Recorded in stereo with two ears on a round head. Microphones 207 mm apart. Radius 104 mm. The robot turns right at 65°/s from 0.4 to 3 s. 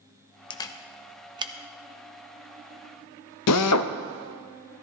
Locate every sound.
0.5 s a camera shutter: 20° left (ahead or behind), 0.6 m; by 1.5 s 25° right (ahead or behind), 0.6 m
3.5 s a drill: 80° left, 0.5 m